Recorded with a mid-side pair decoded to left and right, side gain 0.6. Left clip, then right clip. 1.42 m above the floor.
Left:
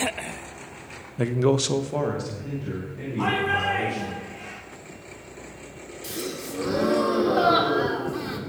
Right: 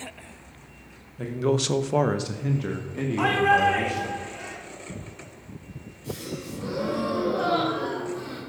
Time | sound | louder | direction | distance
1.2 | a man speaking | left 3 dB | 50° left | 0.9 m
3.2 | a shout | right 4 dB | 65° right | 5.5 m
6.0 | a gasp | left 2 dB | 70° left | 3 m